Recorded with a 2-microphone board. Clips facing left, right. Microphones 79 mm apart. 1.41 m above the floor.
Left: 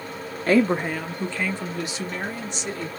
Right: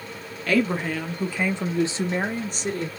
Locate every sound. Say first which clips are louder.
0.5 s a woman speaking: left 3 dB; 35° left (ahead or behind), 0.6 m; by 2.9 s 50° right (ahead or behind), 1.2 m